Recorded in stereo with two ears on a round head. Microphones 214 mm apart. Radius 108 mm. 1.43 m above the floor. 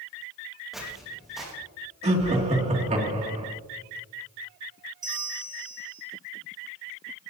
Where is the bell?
15° right (ahead or behind), 1.3 m.